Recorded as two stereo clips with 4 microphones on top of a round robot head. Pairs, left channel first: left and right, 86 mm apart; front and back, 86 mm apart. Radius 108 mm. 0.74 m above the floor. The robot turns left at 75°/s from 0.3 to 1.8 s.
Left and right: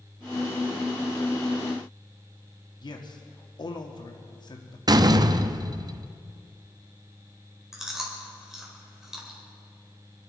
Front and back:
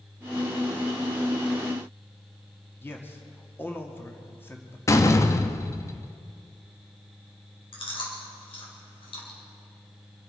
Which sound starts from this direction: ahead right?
A door slam, at 4.9 s.